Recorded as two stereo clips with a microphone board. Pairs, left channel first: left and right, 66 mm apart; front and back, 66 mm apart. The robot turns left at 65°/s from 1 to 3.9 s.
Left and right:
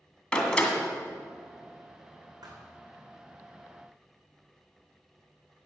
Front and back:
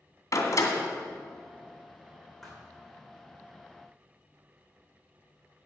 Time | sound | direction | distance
0.3 | a door slam | 15° left | 2.0 m
2.4 | a thud | 90° right | 3 m